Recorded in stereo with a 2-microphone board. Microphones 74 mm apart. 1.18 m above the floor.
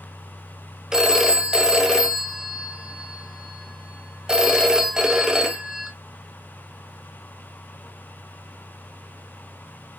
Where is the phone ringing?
10° right (ahead or behind), 0.6 m.